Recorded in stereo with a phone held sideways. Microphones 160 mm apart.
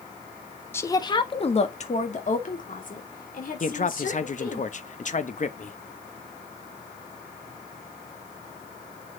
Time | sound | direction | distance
0.7 | a woman speaking | 15° left (ahead or behind) | 1.1 m
3.6 | a man speaking | 50° left (ahead or behind) | 1.0 m